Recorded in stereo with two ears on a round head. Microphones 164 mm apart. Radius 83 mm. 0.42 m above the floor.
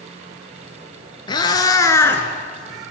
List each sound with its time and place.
1.3 s a cat meowing: 25° left (ahead or behind), 2 m; by 2.9 s centre (ahead or behind), 1.7 m